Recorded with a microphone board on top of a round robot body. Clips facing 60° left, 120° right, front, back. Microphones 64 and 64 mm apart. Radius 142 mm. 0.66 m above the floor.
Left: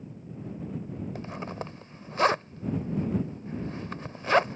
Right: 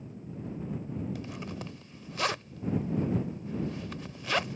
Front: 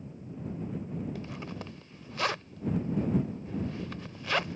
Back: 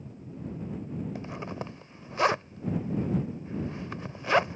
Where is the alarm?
I don't hear an alarm.